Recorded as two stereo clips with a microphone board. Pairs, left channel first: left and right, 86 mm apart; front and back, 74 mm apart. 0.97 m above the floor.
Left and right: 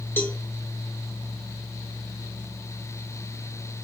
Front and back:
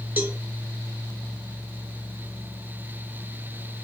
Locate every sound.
0.2 s a cowbell: 140° left, 0.6 m